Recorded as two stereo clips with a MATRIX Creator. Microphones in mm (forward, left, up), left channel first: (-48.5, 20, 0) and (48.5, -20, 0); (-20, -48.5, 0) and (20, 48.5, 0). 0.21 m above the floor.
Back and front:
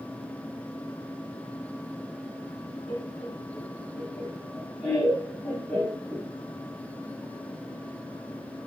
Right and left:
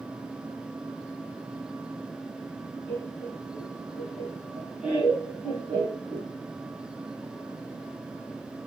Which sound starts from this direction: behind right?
Laughter, at 2.9 s.